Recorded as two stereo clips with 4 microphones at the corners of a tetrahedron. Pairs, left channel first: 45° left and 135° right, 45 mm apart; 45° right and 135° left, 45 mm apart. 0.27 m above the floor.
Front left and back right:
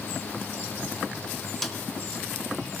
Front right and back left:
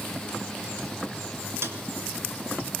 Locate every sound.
1.6 s a snare drum: 135° left, 3 m